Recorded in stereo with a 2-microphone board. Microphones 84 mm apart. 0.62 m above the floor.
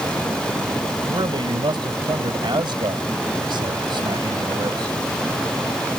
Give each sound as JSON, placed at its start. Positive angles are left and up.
{"t": 1.1, "sound": "a man speaking", "side_deg": -70}